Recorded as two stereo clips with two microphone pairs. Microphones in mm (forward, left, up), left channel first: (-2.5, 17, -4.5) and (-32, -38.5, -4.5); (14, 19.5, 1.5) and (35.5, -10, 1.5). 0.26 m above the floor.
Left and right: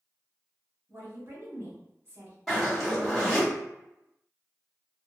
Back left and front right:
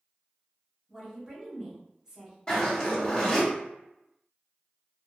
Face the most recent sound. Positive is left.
turn(degrees=140)